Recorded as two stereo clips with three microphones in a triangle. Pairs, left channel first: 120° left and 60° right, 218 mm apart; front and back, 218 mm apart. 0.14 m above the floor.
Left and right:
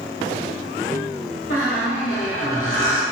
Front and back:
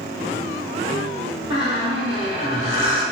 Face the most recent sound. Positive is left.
turn(degrees=115)